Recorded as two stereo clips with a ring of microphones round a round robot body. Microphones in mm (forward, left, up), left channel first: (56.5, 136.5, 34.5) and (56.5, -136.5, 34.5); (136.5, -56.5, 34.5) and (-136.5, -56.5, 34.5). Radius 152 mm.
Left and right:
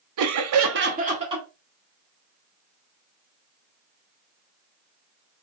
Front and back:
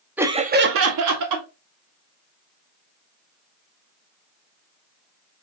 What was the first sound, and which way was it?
Laughter, 95° right.